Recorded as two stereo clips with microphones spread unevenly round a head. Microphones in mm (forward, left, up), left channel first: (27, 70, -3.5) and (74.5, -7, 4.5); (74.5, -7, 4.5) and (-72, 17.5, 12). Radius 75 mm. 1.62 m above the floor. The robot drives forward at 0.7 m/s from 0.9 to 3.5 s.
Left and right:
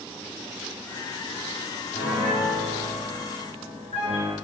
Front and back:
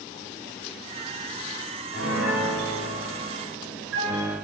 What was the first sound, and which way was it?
A piano, 165° left.